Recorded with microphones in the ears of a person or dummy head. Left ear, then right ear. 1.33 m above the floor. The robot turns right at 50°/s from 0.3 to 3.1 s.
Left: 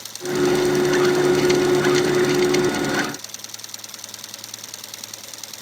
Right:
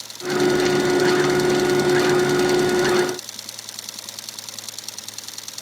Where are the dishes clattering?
I don't hear dishes clattering.